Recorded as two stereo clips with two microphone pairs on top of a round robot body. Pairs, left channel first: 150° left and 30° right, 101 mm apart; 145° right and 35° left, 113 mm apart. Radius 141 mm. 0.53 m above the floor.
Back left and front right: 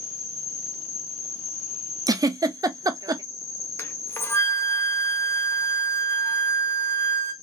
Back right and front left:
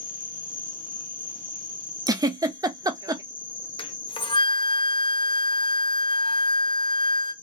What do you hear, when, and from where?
0.0 s an insect: 140° left, 1.1 m
2.1 s a giggle: 5° right, 0.6 m
3.8 s a flute: 150° right, 0.6 m